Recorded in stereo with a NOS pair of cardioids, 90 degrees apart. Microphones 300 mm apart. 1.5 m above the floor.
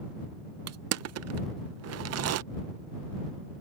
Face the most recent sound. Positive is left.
turn(degrees=-60)